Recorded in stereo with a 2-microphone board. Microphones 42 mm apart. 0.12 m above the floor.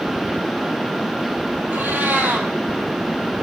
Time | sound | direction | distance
1.7 | a cat meowing | 55° right (ahead or behind) | 1.3 m